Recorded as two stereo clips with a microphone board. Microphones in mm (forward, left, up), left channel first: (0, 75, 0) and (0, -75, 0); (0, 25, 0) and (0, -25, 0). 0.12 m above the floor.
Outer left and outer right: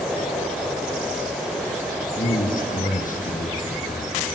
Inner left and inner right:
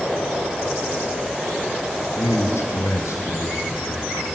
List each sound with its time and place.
2.1 s a man speaking: 65° left (ahead or behind), 5 m